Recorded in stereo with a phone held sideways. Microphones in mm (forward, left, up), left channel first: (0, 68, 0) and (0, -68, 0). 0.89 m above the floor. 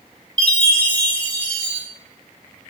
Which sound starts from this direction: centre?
A chime, at 0.4 s.